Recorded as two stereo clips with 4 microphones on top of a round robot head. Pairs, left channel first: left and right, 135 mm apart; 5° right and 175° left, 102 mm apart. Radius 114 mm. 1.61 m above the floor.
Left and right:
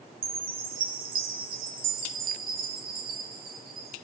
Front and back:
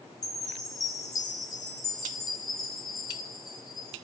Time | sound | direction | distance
0.2 | a chime | 70° right | 2.5 m